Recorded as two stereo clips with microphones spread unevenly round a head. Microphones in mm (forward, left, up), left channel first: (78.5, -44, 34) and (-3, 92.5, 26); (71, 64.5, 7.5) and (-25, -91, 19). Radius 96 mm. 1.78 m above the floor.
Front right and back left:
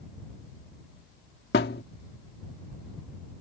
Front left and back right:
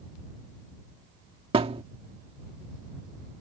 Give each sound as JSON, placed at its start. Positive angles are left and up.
{"t": 1.5, "sound": "a thud", "azimuth_deg": -70}